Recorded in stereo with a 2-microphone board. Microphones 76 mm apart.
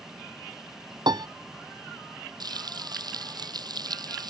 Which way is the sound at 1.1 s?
75° right (ahead or behind).